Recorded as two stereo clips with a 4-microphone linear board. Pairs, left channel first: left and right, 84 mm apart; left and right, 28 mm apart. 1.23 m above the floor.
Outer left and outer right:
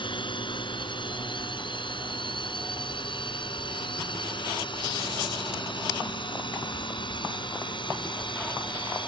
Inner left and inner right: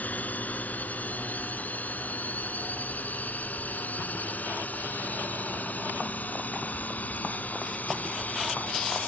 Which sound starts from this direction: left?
A drone, at 0.0 s.